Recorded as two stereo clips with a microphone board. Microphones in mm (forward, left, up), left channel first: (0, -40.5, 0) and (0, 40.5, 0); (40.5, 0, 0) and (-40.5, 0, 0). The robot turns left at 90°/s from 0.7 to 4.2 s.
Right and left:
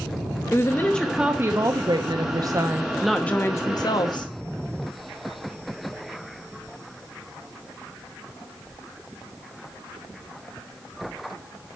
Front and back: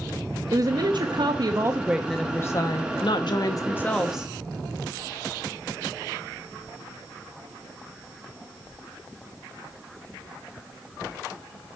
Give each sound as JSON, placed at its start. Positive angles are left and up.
{"t": 0.5, "sound": "a woman speaking", "azimuth_deg": -145, "distance_m": 1.1}